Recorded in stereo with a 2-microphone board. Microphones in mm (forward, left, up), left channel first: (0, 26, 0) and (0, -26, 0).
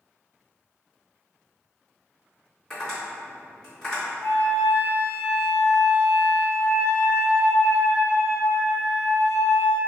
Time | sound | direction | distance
2.7 | tapping | 10° left (ahead or behind) | 1.8 m
4.2 | a flute | 60° left (ahead or behind) | 1.0 m